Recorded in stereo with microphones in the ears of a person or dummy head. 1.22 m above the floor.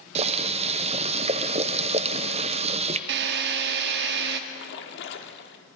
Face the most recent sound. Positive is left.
turn(degrees=60)  # may be behind; listen again after turning